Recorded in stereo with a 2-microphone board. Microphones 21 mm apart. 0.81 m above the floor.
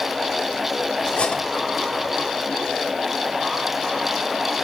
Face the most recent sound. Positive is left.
turn(degrees=70)  # may be behind; listen again after turning